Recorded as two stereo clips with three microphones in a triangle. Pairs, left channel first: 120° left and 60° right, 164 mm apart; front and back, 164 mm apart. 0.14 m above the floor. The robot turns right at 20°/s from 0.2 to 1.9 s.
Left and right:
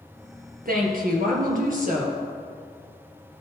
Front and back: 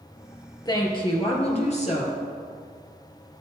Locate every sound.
0.7 s a woman speaking: 60° right, 2.5 m; by 2.2 s 35° right, 2.5 m